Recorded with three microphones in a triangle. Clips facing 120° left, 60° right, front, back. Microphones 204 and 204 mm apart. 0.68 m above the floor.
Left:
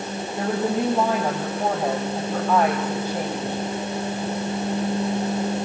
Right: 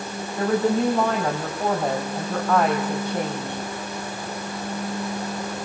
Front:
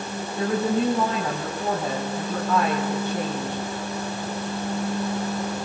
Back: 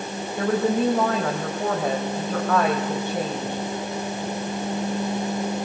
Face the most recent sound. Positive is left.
turn(degrees=-155)